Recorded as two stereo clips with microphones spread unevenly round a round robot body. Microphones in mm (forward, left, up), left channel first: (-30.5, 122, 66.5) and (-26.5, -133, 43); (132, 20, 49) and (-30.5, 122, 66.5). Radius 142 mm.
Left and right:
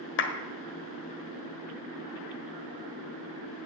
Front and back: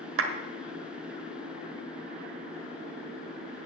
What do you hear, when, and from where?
0.2 s a clap: 140° left, 1.6 m